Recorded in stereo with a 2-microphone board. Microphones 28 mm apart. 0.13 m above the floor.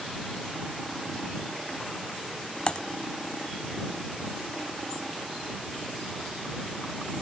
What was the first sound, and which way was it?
Typing on a keyboard, 35° left (ahead or behind).